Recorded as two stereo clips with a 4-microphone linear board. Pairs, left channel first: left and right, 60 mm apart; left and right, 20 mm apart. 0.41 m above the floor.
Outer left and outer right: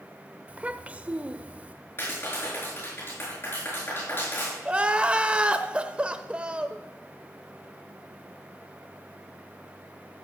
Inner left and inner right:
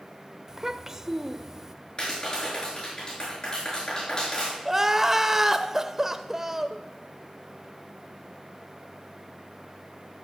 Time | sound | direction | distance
0.5 | a child speaking | 25° right (ahead or behind) | 0.9 m
2.0 | a clap | 40° left (ahead or behind) | 6.5 m
4.7 | crying | 20° right (ahead or behind) | 0.8 m